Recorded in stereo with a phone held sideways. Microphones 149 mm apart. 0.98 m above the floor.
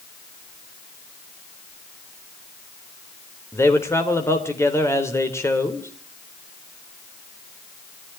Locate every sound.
3.5 s a man speaking: 15° left (ahead or behind), 3.5 m